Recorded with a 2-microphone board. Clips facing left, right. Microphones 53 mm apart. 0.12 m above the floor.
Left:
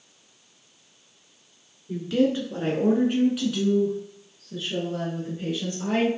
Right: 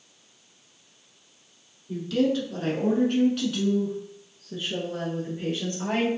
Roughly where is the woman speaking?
Left.